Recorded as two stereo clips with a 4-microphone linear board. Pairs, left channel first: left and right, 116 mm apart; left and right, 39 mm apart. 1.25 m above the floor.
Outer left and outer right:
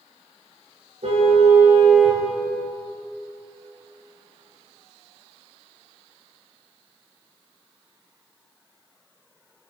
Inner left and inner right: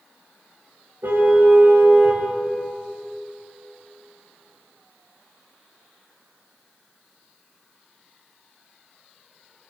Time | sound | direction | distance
1.0 | a car horn | 65° right (ahead or behind) | 3 m